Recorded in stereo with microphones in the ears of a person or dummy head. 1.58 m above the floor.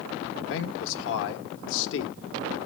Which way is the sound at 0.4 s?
75° left (ahead or behind).